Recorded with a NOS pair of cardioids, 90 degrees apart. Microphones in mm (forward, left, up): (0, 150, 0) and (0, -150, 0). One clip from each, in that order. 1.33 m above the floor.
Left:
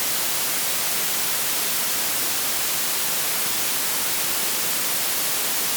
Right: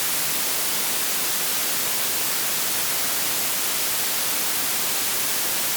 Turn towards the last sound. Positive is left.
No sound to turn to.